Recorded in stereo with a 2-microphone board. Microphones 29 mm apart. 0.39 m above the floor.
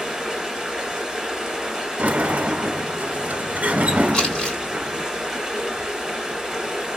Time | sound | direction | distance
0.0 | running water | 10° right (ahead or behind) | 2.5 m
2.0 | a sliding door | 60° right (ahead or behind) | 0.7 m
4.1 | crumpling | 25° left (ahead or behind) | 3.5 m